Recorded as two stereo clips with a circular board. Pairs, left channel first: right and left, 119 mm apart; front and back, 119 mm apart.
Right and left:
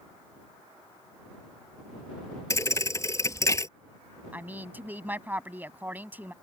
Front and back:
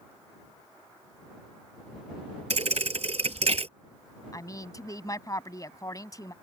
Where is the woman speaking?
30° left.